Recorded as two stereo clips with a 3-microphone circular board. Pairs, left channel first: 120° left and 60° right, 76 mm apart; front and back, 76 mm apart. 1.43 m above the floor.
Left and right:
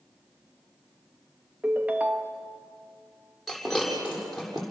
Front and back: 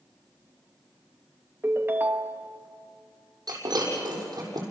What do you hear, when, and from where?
1.6 s a ringtone: 125° right, 1.0 m
3.5 s breaking glass: 150° right, 6.5 m